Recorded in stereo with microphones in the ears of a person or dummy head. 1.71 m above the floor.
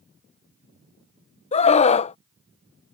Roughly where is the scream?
Left.